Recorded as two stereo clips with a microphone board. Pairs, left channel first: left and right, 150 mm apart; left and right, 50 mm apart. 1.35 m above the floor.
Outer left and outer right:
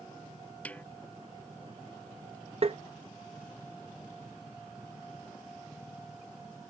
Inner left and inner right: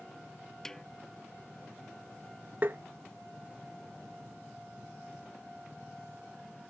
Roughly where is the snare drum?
Centre.